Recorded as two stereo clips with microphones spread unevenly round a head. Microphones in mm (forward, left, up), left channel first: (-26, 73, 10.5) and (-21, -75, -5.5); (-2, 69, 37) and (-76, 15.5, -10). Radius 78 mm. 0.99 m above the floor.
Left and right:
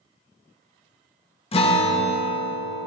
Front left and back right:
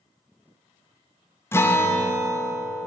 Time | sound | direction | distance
1.5 | a guitar | 125° left | 0.8 m